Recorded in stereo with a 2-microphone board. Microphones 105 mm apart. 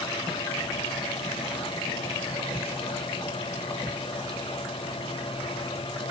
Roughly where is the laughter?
I don't hear laughter.